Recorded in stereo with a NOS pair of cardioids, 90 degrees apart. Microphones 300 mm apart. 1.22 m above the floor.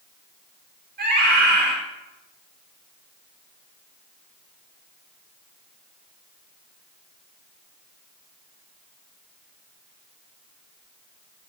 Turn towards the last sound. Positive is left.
turn(degrees=-35)